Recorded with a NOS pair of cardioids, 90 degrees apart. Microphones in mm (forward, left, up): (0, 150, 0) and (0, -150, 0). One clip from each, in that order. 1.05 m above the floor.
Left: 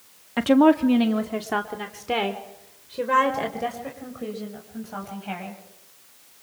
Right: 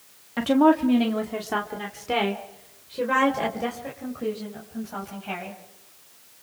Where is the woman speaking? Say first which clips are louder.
Left 2 dB; 25° left, 1.4 m; by 5.5 s 5° left, 6 m.